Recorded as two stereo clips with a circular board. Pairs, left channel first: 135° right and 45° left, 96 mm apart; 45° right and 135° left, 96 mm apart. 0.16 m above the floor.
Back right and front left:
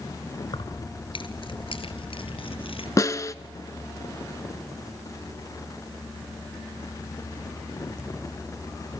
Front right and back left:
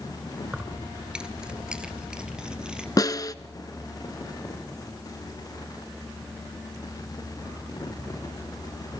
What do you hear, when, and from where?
0.5 s keys jangling: 145° right, 1.5 m
3.0 s a snare drum: 85° right, 0.7 m